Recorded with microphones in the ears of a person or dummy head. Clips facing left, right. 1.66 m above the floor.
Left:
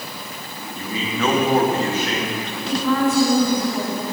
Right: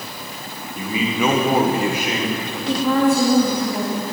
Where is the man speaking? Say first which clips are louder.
Right 4 dB; 10° right (ahead or behind), 1.7 m.